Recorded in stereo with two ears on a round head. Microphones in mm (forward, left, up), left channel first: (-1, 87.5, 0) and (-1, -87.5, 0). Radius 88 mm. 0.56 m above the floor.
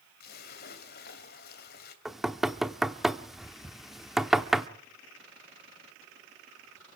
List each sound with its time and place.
0.2 s a splash: 50° left (ahead or behind), 2.5 m
2.0 s knocking: centre (ahead or behind), 0.8 m